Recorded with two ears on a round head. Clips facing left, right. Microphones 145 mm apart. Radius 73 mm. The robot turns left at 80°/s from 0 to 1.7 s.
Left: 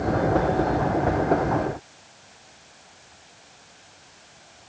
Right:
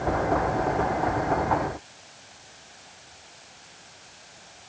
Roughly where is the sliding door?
I don't hear a sliding door.